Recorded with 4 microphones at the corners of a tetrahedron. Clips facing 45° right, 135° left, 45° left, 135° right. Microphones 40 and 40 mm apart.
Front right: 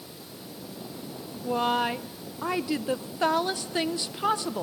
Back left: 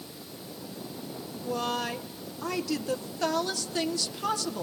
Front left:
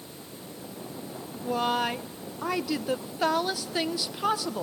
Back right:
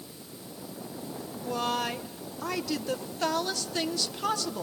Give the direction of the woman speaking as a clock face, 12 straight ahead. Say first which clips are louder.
Front right 5 dB, front left 3 dB; 12 o'clock.